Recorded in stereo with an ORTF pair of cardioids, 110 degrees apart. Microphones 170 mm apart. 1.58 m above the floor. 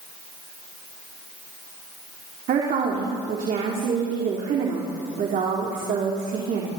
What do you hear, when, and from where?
2.5 s a woman speaking: 55° right, 3.5 m